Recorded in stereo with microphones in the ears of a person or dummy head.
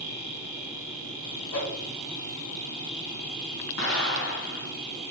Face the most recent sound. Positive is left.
turn(degrees=60)  # may be behind; listen again after turning